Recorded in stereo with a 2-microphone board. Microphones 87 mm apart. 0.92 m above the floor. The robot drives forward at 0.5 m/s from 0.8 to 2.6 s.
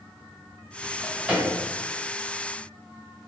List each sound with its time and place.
0.8 s a drawer: 10° right (ahead or behind), 1.6 m